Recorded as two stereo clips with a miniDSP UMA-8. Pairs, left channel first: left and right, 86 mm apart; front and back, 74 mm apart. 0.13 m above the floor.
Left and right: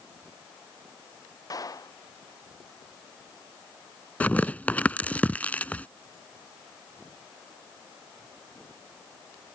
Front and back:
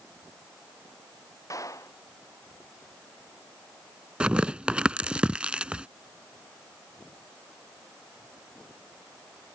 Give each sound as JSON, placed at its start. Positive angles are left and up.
{"t": 1.5, "sound": "a clap", "azimuth_deg": 45}
{"t": 4.2, "sound": "tearing paper", "azimuth_deg": 130}